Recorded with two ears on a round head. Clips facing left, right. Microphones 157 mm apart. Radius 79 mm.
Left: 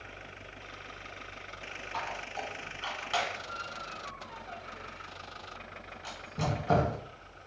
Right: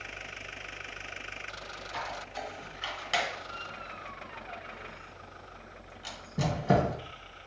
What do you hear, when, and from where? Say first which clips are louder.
1.9 s a squeak: even; 25° right (ahead or behind), 1.3 m